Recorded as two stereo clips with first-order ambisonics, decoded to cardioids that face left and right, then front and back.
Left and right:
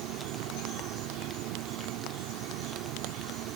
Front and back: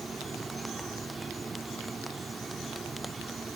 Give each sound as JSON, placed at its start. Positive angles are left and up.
{"t": 0.0, "sound": "an insect", "azimuth_deg": -105}